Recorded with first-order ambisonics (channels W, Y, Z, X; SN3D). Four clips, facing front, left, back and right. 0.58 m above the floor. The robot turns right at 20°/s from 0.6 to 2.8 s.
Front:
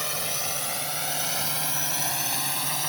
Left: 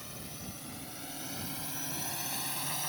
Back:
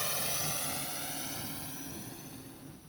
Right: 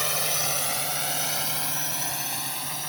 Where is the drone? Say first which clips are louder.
Right 18 dB, front 6 dB; 70° right; by 2.9 s 10° right.